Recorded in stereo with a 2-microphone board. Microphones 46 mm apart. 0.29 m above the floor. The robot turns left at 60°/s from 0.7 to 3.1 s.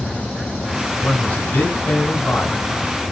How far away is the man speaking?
About 2.5 m.